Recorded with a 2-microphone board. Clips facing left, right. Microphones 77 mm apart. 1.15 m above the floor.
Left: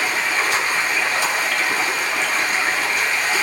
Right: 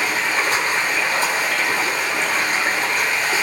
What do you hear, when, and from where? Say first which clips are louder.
0.0 s running water: even; 40° right (ahead or behind), 2 m